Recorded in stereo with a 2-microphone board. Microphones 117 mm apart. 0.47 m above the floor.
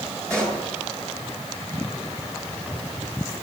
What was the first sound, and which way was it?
A pop, 25° right (ahead or behind).